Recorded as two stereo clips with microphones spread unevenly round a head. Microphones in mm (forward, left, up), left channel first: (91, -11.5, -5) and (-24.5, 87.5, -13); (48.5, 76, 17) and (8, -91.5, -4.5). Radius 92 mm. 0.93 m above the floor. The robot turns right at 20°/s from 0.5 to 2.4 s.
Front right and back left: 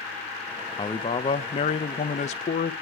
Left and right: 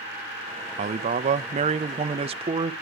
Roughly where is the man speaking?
Right.